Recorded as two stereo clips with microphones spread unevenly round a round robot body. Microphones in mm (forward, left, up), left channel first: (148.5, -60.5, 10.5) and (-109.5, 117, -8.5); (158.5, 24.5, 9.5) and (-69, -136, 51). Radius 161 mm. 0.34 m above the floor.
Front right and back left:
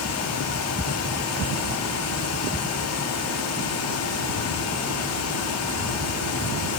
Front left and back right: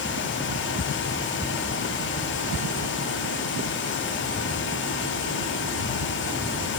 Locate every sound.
Only background noise.